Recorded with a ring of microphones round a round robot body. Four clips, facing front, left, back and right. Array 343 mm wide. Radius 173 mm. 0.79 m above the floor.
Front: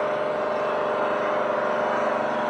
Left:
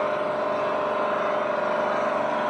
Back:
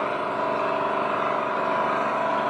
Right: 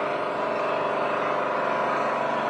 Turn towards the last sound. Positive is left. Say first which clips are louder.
# left 2 dB, front 1 dB
turn(degrees=-170)